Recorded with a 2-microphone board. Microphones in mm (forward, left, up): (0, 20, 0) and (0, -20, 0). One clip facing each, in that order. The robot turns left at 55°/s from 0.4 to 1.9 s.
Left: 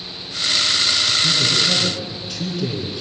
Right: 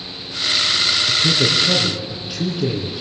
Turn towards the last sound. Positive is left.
turn(degrees=-155)